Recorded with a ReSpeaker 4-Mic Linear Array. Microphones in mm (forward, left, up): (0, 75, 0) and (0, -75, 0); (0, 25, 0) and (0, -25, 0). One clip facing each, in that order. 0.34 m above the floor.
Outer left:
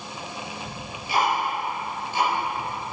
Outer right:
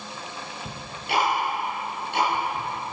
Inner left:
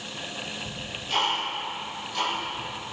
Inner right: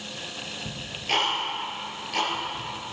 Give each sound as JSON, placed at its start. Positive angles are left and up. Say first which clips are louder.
{"t": 0.7, "sound": "ticking", "louder": "outer right 2 dB, inner right 3 dB", "side_deg": -70, "distance_m": 4.5}